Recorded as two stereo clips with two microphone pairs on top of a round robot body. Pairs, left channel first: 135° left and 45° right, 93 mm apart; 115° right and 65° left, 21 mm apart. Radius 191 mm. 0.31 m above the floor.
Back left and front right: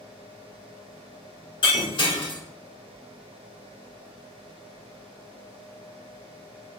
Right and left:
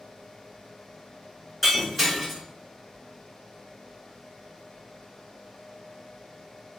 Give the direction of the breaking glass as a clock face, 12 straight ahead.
6 o'clock.